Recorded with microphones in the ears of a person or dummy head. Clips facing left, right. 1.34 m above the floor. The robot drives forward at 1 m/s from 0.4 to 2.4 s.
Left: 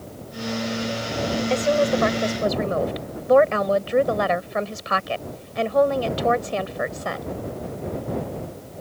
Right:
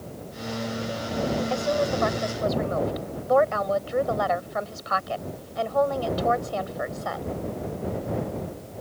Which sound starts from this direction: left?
A woman speaking, at 1.5 s.